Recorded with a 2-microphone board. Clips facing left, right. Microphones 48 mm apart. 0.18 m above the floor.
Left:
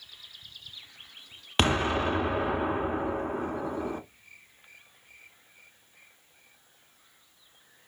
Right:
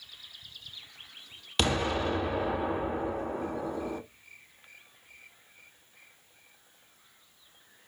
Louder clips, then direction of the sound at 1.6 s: Left 3 dB; 35° left (ahead or behind).